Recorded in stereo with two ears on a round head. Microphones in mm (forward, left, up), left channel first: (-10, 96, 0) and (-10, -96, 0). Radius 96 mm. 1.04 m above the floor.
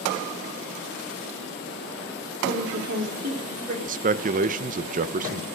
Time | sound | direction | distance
2.4 | a woman speaking | 40° right (ahead or behind) | 3.5 m
3.9 | a man speaking | 40° right (ahead or behind) | 0.8 m